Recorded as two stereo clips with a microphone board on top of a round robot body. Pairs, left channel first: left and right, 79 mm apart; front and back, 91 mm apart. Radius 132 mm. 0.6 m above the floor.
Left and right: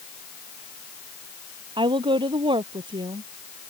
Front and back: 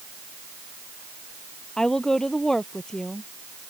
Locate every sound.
1.8 s a woman speaking: 85° right